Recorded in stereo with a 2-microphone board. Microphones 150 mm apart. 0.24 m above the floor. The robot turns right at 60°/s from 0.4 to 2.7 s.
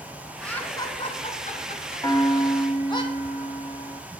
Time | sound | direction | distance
0.4 | laughter | 5° left (ahead or behind) | 2 m
2.0 | a piano | 40° left | 0.9 m